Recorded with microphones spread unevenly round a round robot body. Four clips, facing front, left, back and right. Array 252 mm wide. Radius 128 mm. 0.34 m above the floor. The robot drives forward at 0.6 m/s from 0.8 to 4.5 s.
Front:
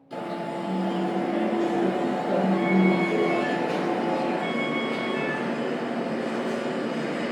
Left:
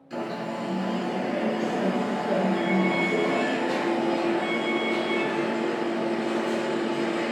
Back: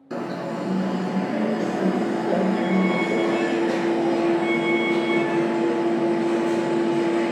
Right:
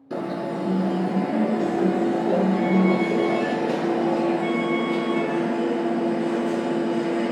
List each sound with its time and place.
0.1 s an alarm: 130° right, 4 m; by 7.3 s 145° right, 6 m